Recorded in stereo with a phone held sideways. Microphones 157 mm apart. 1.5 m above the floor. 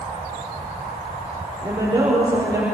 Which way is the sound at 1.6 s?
25° right (ahead or behind).